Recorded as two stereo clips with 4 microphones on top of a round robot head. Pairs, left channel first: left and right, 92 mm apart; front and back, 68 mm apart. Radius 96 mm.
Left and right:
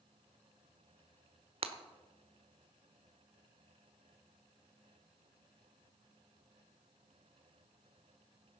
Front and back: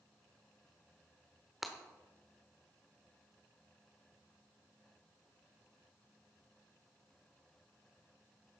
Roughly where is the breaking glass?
Right.